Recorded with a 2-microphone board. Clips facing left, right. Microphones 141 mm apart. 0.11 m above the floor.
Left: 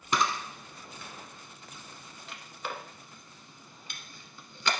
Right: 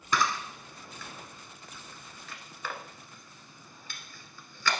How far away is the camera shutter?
About 1.1 m.